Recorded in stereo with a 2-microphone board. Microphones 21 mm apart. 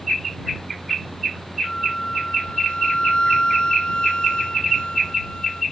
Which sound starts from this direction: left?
A flute, at 1.6 s.